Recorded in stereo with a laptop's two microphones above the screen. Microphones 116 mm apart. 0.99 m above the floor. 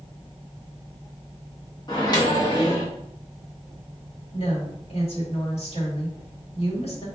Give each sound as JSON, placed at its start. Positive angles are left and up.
{"t": 1.9, "sound": "a microwave", "side_deg": 35, "distance_m": 1.3}
{"t": 4.3, "sound": "a woman speaking", "side_deg": 60, "distance_m": 1.6}